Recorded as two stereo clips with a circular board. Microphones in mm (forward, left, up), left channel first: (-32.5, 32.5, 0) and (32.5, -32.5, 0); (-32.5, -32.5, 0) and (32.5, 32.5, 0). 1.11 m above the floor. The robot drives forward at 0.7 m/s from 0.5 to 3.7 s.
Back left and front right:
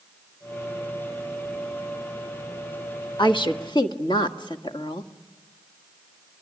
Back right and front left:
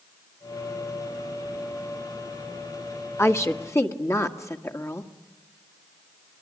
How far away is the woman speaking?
About 1.4 m.